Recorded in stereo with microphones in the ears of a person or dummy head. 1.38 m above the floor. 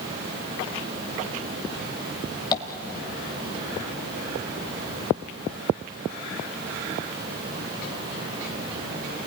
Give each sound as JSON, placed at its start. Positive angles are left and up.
{"t": 2.5, "sound": "tapping", "side_deg": 20, "distance_m": 1.7}